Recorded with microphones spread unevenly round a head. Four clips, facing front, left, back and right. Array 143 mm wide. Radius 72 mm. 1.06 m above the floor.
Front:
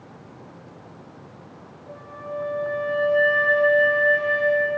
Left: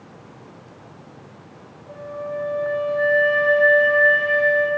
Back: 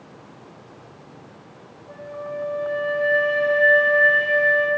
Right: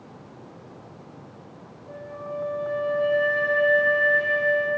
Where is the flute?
90° right, 0.9 m.